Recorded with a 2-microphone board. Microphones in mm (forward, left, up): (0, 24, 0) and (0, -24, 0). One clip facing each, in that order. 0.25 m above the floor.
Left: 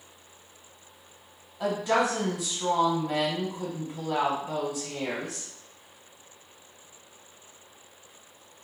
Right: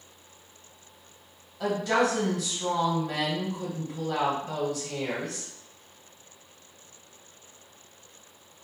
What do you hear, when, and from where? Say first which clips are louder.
1.6 s a woman speaking: even; 15° left (ahead or behind), 1.3 m